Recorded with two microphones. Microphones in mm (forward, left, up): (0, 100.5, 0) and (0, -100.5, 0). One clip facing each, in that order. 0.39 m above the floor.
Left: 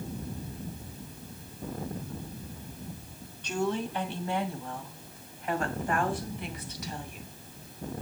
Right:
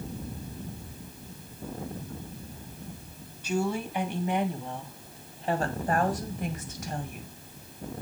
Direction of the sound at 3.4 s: 5° right (ahead or behind).